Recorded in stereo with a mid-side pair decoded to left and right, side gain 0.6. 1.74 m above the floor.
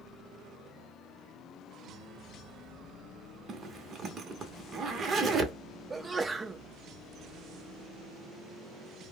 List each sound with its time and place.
3.5 s a zipper: 40° right, 0.8 m
5.9 s a sneeze: 20° right, 0.6 m